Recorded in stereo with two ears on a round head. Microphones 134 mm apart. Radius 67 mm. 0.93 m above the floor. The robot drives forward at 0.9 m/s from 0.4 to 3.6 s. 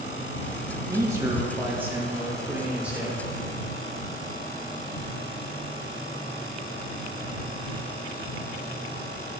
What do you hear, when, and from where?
0.9 s a man speaking: 25° right (ahead or behind), 1.4 m; by 3.3 s 10° right (ahead or behind), 3.5 m